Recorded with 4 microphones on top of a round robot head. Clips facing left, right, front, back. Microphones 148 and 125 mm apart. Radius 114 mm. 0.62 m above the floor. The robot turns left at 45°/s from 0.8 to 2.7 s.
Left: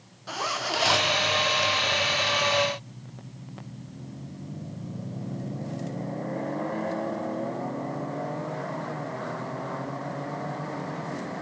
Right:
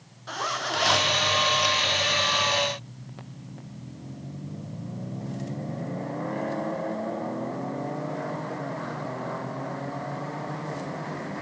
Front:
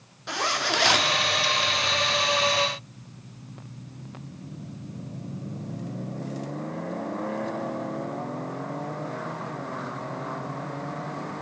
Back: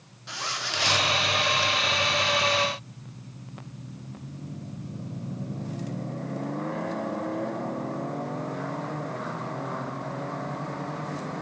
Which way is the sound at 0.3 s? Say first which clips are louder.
Even, front 8 dB; 10° left.